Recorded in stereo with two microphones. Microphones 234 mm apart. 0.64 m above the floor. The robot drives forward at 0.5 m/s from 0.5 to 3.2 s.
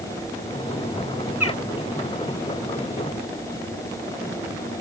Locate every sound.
1.4 s a bird: 85° left